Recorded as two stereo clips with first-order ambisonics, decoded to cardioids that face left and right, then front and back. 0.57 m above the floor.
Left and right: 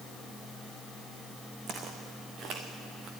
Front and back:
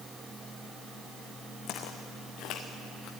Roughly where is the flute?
I don't hear a flute.